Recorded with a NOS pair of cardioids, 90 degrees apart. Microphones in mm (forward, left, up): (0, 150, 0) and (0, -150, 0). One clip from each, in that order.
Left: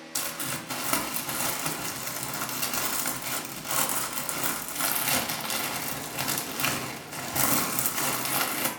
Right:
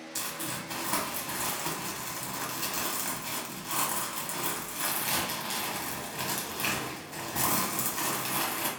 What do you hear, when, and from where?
0.1 s crumpling: 35° left, 0.7 m